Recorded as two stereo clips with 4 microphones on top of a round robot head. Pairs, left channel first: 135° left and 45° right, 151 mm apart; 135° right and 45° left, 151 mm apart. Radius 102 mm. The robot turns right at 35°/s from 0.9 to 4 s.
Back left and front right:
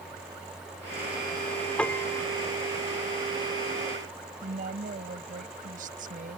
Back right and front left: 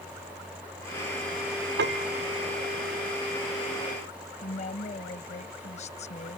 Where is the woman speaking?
85° right.